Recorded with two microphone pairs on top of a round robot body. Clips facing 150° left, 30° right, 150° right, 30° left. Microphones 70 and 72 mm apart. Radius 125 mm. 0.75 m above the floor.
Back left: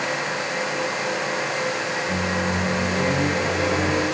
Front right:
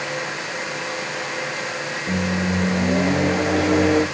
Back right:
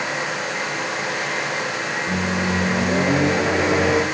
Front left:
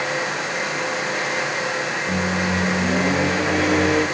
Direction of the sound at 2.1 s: 75° right.